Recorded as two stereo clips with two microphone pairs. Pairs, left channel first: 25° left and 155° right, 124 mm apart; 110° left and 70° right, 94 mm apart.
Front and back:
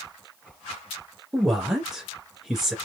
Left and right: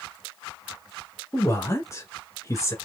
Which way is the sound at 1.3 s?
120° left.